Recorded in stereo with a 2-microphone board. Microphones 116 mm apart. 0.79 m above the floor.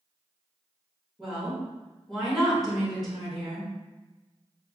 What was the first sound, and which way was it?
A woman speaking, centre (ahead or behind).